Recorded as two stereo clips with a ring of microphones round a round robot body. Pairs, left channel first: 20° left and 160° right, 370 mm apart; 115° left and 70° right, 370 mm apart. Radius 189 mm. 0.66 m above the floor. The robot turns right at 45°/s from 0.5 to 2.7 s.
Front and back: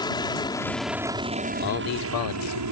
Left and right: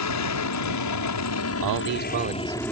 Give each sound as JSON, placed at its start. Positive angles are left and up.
{"t": 0.0, "sound": "an aircraft", "azimuth_deg": 95}
{"t": 1.6, "sound": "a man speaking", "azimuth_deg": -35}